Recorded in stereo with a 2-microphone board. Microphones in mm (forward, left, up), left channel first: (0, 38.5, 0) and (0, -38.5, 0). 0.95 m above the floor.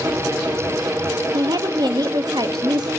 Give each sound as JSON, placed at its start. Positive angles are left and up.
{"t": 1.3, "sound": "a woman speaking", "side_deg": -65, "distance_m": 1.0}